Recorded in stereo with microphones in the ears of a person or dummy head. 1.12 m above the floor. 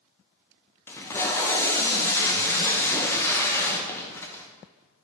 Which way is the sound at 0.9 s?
10° left (ahead or behind).